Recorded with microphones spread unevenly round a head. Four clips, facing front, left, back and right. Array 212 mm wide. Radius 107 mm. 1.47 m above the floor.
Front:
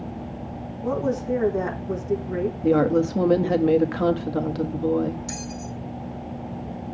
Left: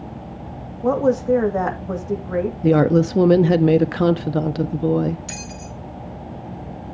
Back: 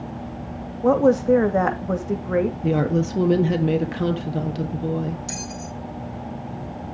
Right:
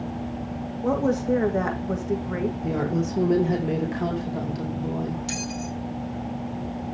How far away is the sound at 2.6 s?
About 1.2 m.